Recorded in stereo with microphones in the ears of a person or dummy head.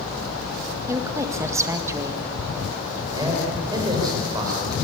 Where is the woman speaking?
15° right (ahead or behind), 1.9 m.